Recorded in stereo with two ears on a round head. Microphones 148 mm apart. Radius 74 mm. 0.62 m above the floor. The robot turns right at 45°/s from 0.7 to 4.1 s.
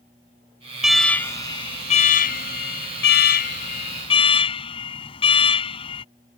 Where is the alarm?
5° right; by 6.0 s 145° left.